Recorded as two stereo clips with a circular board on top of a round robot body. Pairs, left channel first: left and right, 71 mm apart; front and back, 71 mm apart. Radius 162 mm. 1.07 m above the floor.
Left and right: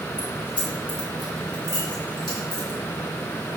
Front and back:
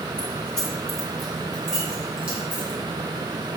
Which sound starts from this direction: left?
Keys jangling, at 0.2 s.